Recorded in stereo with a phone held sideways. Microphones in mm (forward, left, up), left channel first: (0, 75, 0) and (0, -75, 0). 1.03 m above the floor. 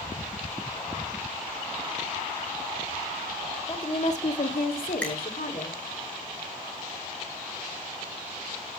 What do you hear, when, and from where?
3.7 s a woman speaking: 35° left (ahead or behind), 2 m; by 5.8 s 80° left, 3 m
5.0 s a finger snap: 10° left (ahead or behind), 6 m